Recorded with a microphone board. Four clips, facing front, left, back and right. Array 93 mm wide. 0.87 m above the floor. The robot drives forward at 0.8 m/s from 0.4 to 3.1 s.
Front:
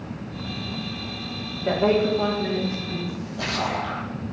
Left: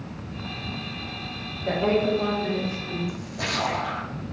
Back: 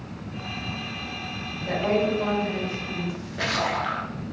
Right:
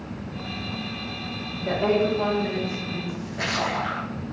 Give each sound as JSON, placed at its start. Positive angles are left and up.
{"t": 1.6, "sound": "a woman speaking", "azimuth_deg": -20, "distance_m": 2.0}
{"t": 3.1, "sound": "a splash", "azimuth_deg": -145, "distance_m": 1.8}